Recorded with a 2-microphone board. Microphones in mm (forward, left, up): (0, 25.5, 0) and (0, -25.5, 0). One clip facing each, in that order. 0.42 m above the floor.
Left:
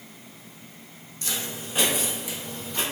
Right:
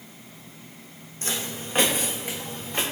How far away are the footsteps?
About 0.7 m.